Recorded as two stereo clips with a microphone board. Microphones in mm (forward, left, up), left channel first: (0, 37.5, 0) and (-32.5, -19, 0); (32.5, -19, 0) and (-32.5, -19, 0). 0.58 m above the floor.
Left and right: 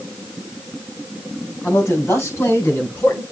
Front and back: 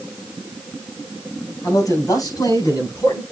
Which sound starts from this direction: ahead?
A man speaking, at 1.6 s.